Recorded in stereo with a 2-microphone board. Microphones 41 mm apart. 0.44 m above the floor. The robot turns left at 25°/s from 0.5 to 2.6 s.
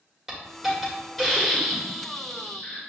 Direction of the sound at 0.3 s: 165° right.